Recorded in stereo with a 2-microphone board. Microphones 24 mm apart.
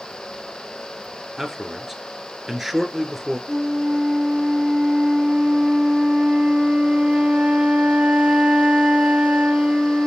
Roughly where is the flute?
Right.